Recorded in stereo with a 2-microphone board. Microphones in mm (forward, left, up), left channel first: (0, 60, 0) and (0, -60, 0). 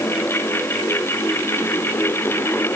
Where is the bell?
No bell in this recording.